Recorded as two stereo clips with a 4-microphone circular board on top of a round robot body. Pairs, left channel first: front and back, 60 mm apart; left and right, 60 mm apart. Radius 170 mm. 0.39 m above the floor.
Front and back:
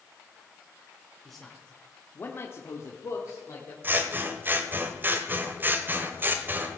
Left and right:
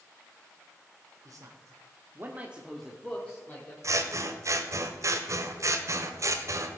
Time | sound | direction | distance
1.2 | a man speaking | 85° right | 2.5 m
3.8 | scissors | 125° right | 1.2 m